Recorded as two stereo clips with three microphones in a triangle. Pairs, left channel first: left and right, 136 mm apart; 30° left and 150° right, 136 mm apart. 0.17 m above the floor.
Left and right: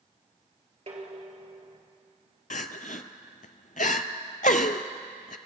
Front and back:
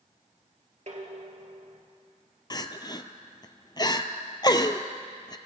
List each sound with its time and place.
0.9 s dishes clattering: 125° right, 2.5 m
2.5 s crying: 85° left, 0.6 m